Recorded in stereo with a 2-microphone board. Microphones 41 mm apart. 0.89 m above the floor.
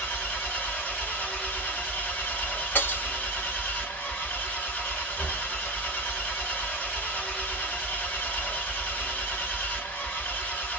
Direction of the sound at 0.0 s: 35° left (ahead or behind).